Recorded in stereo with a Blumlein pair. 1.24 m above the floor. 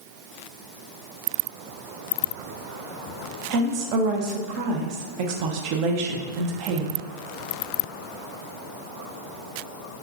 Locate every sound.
3.5 s a woman speaking: 45° right, 0.7 m